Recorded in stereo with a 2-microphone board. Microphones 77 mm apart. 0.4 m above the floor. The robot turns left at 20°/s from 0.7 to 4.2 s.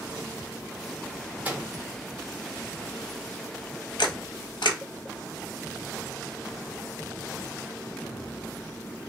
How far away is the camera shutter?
About 0.5 m.